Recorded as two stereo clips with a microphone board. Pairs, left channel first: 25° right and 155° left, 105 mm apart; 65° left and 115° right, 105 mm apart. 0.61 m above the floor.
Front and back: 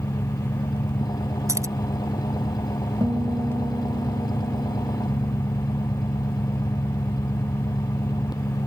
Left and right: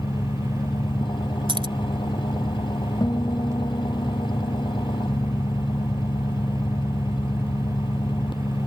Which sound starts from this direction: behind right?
Keys jangling, at 1.5 s.